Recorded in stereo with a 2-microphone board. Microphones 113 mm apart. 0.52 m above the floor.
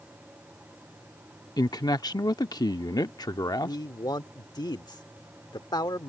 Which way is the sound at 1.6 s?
35° left (ahead or behind).